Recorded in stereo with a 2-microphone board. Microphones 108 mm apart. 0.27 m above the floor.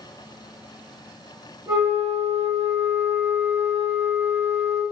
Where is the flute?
35° right (ahead or behind), 2.0 m.